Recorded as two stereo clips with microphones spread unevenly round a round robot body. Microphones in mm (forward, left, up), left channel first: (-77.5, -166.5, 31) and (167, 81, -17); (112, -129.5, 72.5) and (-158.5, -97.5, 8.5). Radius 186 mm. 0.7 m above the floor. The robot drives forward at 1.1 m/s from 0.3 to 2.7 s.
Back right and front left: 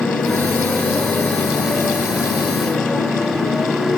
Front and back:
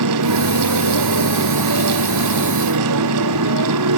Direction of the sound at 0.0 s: 135° left.